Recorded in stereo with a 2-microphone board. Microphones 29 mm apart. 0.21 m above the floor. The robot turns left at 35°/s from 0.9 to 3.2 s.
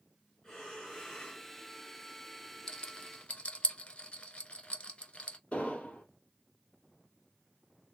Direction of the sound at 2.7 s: 25° left (ahead or behind).